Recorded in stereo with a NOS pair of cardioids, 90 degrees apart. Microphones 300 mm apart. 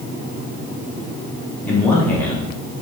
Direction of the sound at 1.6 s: 5° left.